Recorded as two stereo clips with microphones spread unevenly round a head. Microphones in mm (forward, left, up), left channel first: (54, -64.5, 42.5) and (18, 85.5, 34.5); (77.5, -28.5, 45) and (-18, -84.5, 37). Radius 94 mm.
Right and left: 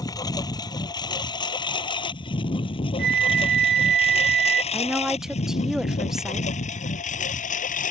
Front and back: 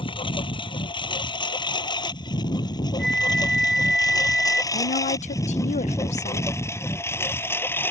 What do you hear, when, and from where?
0.0 s a lawn mower: 10° right; by 7.9 s 40° right
3.0 s a flute: 120° left
4.7 s a woman speaking: 15° left